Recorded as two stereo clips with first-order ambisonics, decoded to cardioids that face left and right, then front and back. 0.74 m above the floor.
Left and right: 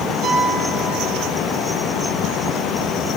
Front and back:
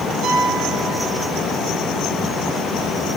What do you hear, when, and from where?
0.2 s a piano: 130° right, 6 m